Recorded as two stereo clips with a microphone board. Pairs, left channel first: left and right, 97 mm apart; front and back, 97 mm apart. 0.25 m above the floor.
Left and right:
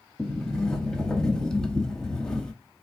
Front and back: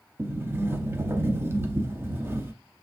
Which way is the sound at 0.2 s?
165° left.